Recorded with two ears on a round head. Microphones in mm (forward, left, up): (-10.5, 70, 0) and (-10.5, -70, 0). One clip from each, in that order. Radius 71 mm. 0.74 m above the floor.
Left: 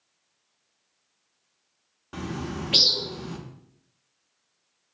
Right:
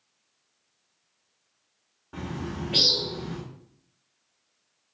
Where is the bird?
75° left (ahead or behind), 0.6 m.